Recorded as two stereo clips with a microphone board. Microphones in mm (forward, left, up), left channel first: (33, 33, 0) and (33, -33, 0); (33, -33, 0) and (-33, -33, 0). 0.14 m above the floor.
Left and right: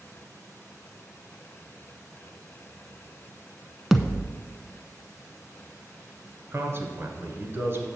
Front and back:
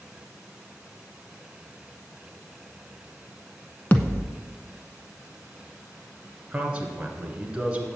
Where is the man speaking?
110° right, 1.7 m.